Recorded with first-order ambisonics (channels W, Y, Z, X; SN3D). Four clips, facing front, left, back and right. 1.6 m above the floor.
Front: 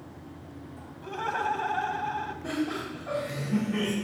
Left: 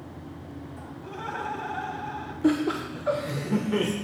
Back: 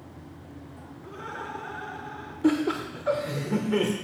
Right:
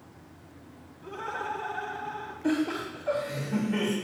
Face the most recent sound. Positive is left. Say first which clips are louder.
# left 4 dB, back 10 dB
turn(degrees=135)